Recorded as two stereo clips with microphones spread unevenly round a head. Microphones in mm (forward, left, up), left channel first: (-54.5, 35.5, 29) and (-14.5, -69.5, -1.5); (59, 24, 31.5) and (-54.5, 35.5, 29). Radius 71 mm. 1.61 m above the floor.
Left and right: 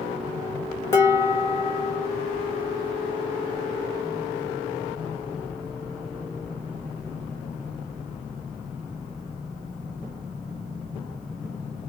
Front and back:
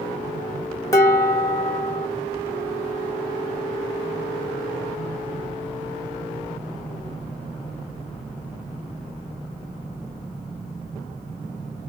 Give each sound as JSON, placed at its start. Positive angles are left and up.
{"t": 0.9, "sound": "dishes clattering", "azimuth_deg": 50, "distance_m": 1.3}